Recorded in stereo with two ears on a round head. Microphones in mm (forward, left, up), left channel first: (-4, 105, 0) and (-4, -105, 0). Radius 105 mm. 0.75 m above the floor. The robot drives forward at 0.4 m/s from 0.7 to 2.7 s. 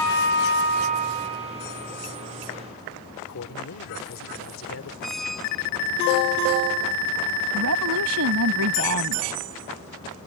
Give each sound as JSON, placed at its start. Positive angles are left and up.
{"t": 3.3, "sound": "a man speaking", "side_deg": 60}
{"t": 5.0, "sound": "a squeak", "side_deg": 0}
{"t": 7.5, "sound": "a woman speaking", "side_deg": -70}